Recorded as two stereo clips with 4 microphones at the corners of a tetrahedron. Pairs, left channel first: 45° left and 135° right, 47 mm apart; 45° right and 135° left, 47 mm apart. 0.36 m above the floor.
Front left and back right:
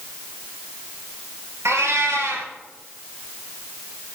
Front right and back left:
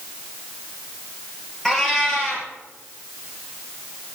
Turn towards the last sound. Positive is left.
turn(degrees=-125)